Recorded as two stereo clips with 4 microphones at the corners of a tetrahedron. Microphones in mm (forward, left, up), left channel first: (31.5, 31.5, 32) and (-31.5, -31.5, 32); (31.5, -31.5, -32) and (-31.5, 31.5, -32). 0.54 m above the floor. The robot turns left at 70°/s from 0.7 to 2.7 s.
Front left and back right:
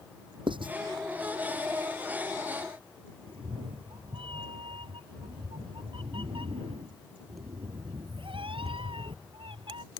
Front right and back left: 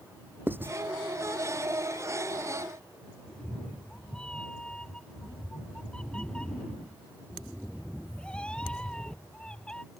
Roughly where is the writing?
Behind right.